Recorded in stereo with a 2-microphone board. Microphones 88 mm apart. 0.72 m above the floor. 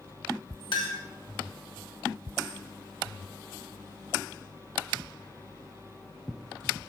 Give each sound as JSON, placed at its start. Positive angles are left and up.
{"t": 0.7, "sound": "a clink", "side_deg": 65, "distance_m": 0.9}